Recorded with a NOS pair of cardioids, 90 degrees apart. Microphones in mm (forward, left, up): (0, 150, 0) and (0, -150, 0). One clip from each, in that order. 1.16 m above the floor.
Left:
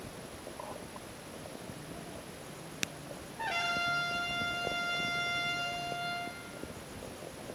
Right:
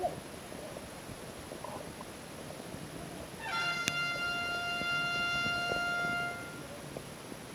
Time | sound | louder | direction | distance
3.4 | a trumpet | left 1 dB | 55° left | 8 m